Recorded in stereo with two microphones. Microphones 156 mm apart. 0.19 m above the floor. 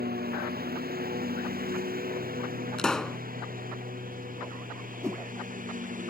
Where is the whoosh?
20° right (ahead or behind).